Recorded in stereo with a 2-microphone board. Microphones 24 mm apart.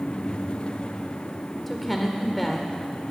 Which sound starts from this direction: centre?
A woman speaking, at 1.7 s.